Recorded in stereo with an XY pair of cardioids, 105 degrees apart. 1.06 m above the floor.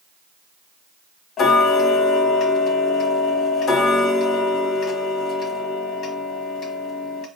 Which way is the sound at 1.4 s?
60° left.